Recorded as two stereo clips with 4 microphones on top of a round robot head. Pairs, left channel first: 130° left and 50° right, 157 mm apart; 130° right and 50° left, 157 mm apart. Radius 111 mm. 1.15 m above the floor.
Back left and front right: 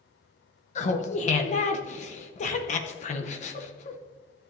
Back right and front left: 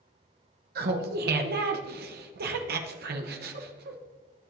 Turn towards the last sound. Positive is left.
turn(degrees=80)